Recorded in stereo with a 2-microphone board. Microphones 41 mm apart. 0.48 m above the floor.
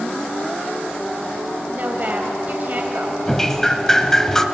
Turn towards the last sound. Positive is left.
turn(degrees=10)  # may be behind; listen again after turning